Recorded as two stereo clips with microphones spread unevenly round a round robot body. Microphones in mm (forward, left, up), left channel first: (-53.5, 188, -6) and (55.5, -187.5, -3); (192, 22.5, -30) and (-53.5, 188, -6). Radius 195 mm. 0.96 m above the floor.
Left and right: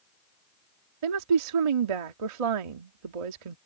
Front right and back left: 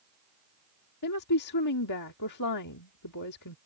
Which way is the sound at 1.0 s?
80° right.